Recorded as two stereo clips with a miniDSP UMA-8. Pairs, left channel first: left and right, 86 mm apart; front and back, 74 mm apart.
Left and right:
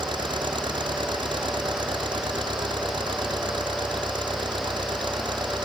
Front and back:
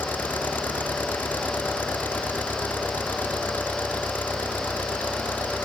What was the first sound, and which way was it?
An engine running, 65° right.